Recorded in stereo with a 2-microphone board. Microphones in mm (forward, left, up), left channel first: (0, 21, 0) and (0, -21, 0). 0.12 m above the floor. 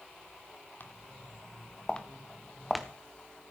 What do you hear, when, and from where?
0.8 s footsteps: 50° left (ahead or behind), 1.5 m; by 2.9 s centre (ahead or behind), 1.4 m